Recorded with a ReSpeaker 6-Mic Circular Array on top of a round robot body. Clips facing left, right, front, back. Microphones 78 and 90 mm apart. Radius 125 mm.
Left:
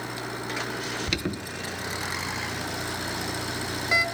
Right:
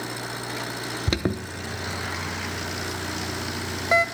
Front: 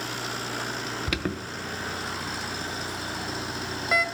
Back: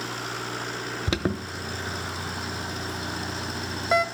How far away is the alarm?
About 1.0 m.